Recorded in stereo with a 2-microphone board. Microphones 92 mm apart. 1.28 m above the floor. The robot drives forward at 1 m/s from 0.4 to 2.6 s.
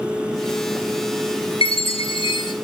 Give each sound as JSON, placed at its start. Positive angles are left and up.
{"t": 1.6, "sound": "a chime", "side_deg": 85, "distance_m": 1.2}